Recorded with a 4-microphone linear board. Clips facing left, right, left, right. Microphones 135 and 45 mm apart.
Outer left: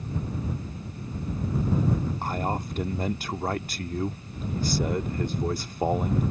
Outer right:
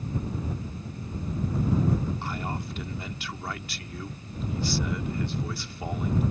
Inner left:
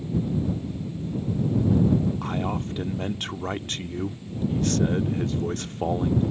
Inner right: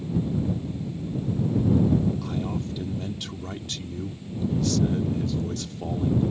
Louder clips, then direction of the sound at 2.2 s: Outer left 4 dB, inner left 2 dB; 40° left (ahead or behind).